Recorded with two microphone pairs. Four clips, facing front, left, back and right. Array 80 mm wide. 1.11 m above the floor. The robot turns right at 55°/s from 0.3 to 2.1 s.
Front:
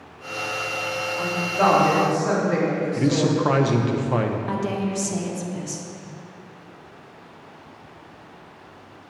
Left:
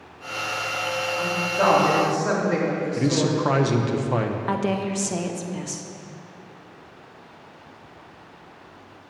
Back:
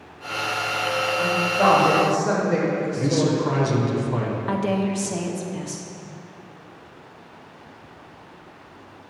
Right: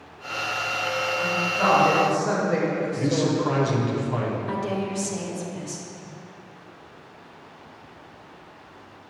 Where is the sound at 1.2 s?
25° left, 3 m; by 3.4 s 75° left, 3 m.